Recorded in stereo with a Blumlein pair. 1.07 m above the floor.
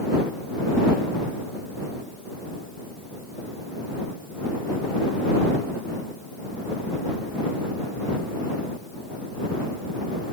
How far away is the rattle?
No rattle in this recording.